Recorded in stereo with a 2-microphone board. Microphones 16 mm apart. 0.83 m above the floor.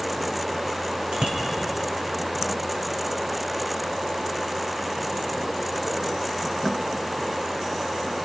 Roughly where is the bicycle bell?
Right.